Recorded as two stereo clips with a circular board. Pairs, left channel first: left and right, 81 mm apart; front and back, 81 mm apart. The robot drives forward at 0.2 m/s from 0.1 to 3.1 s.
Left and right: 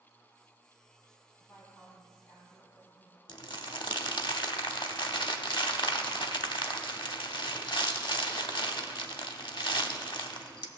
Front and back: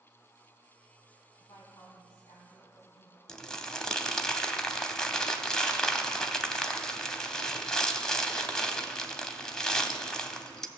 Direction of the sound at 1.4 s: 40° left.